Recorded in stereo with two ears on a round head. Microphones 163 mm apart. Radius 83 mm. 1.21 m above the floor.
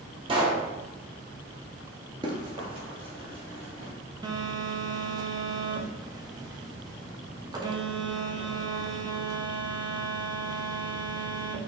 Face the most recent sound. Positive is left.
turn(degrees=-20)  # may be behind; listen again after turning